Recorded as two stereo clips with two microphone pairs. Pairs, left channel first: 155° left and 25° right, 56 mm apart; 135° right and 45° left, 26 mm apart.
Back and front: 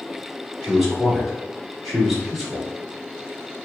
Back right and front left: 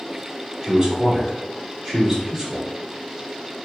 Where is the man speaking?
60° left, 1.1 m.